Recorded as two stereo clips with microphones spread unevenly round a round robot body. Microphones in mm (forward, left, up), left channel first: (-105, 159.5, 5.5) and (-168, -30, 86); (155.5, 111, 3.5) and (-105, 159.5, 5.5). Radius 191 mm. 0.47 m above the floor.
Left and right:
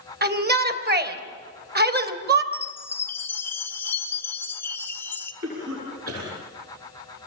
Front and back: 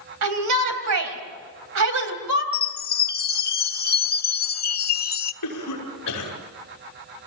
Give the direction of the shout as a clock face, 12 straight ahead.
5 o'clock.